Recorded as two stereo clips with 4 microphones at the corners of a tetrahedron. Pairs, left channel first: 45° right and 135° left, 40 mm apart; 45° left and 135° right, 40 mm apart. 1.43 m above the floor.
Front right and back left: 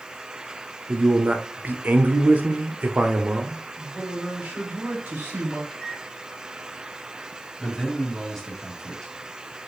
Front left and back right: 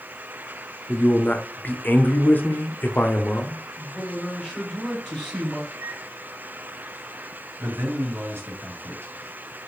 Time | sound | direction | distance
0.9 | a man speaking | 85° left | 0.7 m
3.8 | a man speaking | 125° left | 3 m
5.7 | a microwave | 115° right | 1.5 m
7.6 | a man speaking | 125° right | 1.5 m